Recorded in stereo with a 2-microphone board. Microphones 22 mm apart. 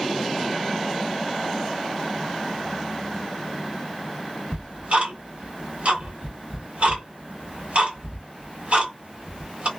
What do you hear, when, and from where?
4.5 s ticking: 65° right (ahead or behind), 1.6 m